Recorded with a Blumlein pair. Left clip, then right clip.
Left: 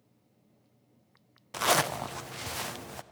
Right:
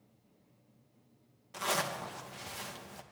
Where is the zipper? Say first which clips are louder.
Left 7 dB; 25° left, 0.5 m.